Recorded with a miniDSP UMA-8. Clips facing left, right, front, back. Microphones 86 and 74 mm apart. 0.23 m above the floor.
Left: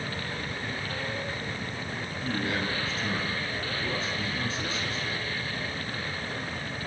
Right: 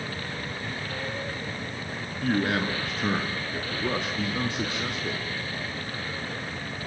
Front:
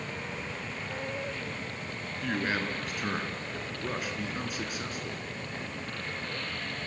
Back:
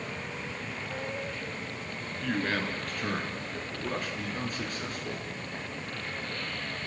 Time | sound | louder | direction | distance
2.2 | a man speaking | right 6 dB, back 1 dB | 80° right | 3.5 m